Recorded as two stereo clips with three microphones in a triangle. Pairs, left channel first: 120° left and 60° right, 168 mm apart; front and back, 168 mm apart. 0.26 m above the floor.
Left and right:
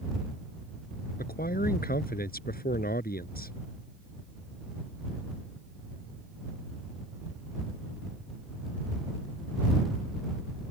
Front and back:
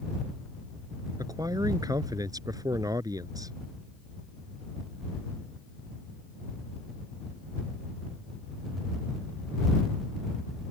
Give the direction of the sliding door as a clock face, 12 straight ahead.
No sliding door in this recording.